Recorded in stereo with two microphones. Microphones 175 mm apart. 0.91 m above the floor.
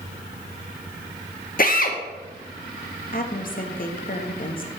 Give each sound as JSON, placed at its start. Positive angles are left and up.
{"t": 1.6, "sound": "a drill", "side_deg": 55, "distance_m": 1.0}
{"t": 3.1, "sound": "a woman speaking", "side_deg": 55, "distance_m": 1.0}